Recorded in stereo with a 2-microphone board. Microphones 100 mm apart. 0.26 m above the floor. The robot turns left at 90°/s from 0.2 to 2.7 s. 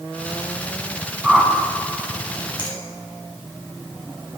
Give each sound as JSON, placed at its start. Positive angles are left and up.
{"t": 1.2, "sound": "a whoosh", "side_deg": -10, "distance_m": 0.6}
{"t": 2.6, "sound": "a finger snap", "side_deg": 50, "distance_m": 1.9}